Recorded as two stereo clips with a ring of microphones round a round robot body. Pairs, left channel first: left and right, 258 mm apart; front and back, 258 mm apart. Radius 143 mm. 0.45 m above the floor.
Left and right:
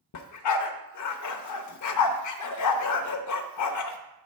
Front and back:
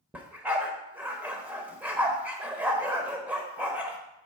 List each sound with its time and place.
0.1 s a dog barking: 95° left, 0.7 m